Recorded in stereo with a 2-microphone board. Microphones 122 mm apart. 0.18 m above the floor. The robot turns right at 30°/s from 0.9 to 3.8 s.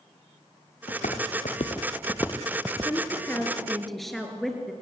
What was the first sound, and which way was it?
Footsteps, 75° left (ahead or behind).